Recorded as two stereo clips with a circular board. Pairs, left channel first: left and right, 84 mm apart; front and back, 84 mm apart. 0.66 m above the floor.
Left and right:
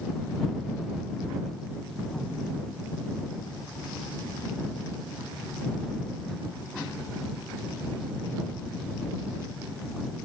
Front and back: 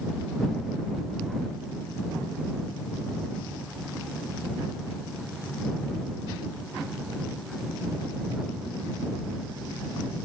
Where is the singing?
I don't hear singing.